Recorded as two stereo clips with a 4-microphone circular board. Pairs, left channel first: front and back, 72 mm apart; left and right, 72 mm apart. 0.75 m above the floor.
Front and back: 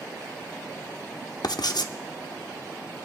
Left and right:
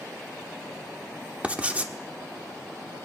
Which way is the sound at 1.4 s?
20° right.